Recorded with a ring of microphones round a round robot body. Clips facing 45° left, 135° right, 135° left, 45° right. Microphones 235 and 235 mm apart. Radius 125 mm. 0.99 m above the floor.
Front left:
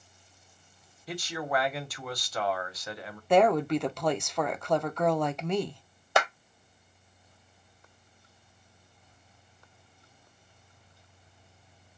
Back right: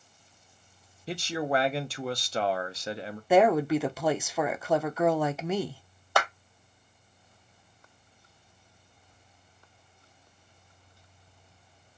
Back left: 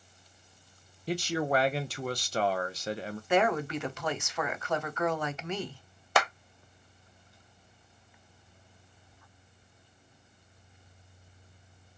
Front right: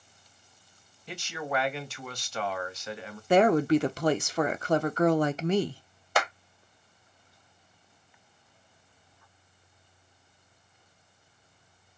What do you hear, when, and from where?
1.1 s a man speaking: 175° left, 0.7 m
3.3 s a woman speaking: 55° right, 0.5 m
6.2 s a clap: 115° left, 1.1 m